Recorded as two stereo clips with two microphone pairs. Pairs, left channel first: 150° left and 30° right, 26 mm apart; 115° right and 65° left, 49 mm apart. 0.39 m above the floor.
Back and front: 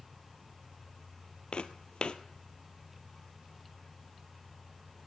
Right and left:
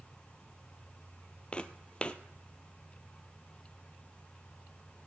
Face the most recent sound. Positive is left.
turn(degrees=180)